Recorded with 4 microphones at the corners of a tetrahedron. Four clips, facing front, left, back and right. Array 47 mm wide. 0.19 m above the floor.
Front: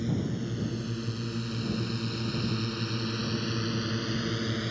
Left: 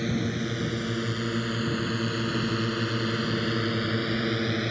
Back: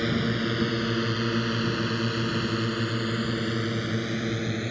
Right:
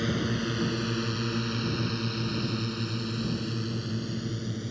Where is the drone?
175° right; by 4.7 s 105° left.